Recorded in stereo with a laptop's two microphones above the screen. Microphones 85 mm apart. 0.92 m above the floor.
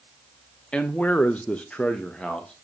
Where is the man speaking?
15° left (ahead or behind), 0.6 m; by 2.5 s 10° left (ahead or behind), 1.1 m.